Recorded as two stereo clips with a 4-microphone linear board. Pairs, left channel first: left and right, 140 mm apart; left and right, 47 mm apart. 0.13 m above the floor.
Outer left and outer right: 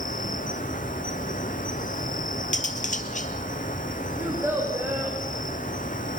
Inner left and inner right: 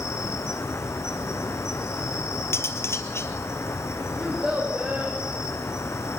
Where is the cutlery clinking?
65° left (ahead or behind), 1.7 m.